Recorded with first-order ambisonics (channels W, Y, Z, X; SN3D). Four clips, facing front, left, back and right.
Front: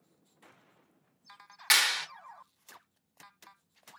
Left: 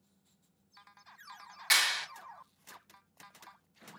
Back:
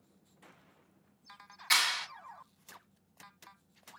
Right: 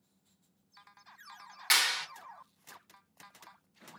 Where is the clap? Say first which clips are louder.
Even, front 3 dB; 10° right, 0.9 m.